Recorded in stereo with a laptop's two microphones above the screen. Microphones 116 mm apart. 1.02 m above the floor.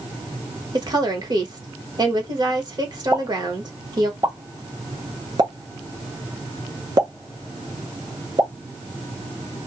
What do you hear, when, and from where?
0.7 s a woman speaking: 40° right (ahead or behind), 1.1 m
3.1 s a pop: 35° right (ahead or behind), 1.0 m